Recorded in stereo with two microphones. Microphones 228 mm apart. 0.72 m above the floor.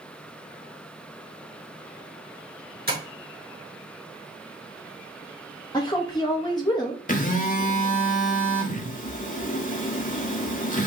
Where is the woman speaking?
20° left (ahead or behind), 0.6 m.